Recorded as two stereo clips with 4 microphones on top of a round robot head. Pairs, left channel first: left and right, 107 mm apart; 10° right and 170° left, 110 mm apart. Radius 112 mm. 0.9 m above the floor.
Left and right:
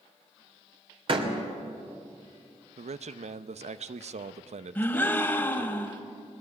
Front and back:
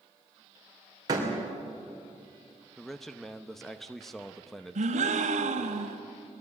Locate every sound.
1.1 s a door slam: 130° right, 3 m
2.8 s a man speaking: 95° right, 0.8 m
4.8 s a gasp: 165° left, 1.7 m